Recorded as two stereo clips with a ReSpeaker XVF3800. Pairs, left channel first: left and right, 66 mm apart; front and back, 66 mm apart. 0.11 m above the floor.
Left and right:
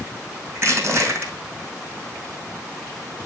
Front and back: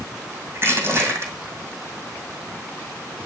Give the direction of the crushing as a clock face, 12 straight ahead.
4 o'clock.